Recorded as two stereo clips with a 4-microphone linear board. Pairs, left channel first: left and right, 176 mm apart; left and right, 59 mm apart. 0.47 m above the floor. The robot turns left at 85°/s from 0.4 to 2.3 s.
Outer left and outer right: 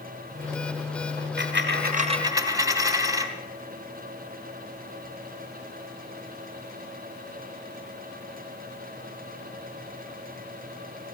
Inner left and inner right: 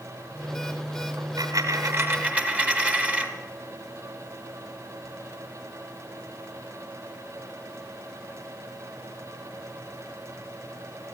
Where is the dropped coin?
65° right, 1.3 m; by 3.3 s 160° right, 1.3 m.